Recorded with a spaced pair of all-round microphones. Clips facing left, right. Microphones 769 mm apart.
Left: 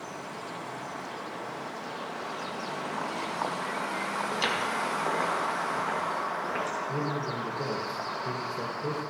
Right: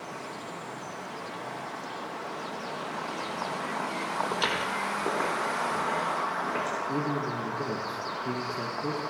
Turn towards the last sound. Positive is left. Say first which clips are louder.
# right 3 dB
turn(degrees=20)  # may be behind; listen again after turning